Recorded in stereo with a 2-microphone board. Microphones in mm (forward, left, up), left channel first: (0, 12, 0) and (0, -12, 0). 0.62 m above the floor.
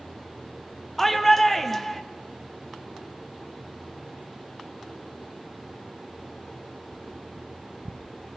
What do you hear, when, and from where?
1.0 s a shout: 10° left (ahead or behind), 0.8 m